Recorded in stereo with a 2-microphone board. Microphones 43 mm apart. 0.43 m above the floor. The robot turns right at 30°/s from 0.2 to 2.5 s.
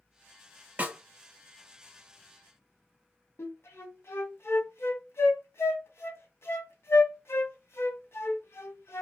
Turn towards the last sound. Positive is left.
turn(degrees=65)  # may be behind; listen again after turning